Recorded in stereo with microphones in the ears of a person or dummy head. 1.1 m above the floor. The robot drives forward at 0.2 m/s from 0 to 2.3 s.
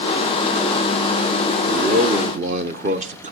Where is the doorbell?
I don't hear a doorbell.